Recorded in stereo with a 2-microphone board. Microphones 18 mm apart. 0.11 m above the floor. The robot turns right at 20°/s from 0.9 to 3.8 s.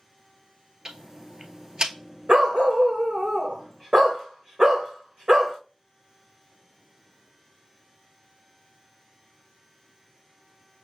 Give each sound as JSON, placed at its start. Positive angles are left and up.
{"t": 0.8, "sound": "ticking", "side_deg": -35, "distance_m": 0.9}
{"t": 2.3, "sound": "a dog barking", "azimuth_deg": -70, "distance_m": 1.6}